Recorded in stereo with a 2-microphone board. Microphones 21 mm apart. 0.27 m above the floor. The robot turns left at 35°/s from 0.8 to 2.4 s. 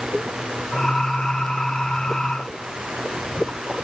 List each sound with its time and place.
Only background noise.